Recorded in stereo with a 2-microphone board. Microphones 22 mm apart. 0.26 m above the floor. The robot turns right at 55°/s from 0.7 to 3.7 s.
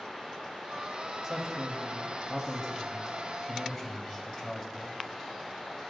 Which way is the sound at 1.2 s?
20° right (ahead or behind).